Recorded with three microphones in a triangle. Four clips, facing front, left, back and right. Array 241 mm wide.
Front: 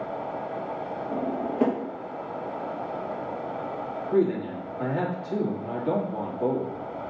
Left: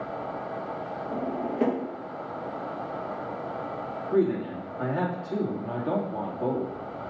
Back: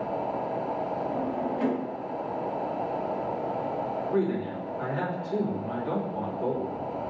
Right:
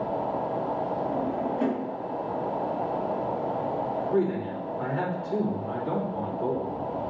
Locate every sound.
1.1 s a drawer: 25° left, 1.0 m
4.1 s a man speaking: 50° left, 2.5 m